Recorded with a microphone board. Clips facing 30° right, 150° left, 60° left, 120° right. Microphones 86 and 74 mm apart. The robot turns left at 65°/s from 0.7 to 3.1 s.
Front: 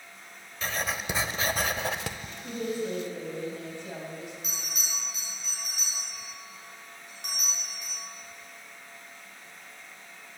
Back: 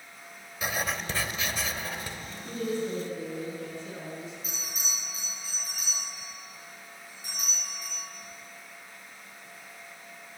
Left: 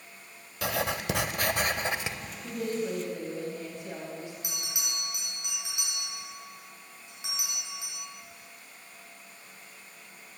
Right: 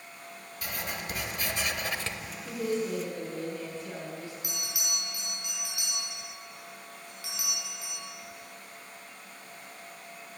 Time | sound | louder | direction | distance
0.6 | writing | even, left 7 dB | 70° left | 0.5 m
2.4 | a woman speaking | even, right 1 dB | 30° left | 3.5 m
4.4 | a bell | even, right 1 dB | 10° right | 4.5 m